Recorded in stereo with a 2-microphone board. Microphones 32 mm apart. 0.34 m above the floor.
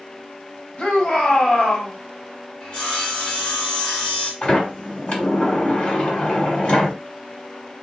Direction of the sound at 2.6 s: 30° left (ahead or behind).